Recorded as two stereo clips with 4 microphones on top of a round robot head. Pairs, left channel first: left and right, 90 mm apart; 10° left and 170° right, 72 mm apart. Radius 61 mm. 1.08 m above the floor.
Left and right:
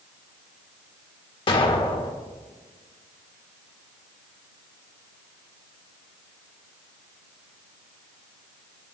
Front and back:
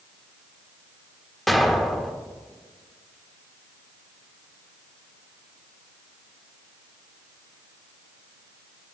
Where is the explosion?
100° left, 1.2 m.